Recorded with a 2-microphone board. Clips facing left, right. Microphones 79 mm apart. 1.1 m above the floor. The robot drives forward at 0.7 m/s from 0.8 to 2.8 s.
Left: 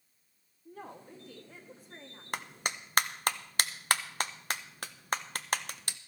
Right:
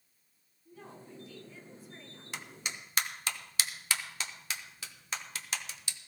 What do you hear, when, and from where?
0.7 s a woman speaking: 60° left (ahead or behind), 2 m; by 2.2 s 45° left (ahead or behind), 2.5 m
2.3 s a clap: 50° left (ahead or behind), 0.7 m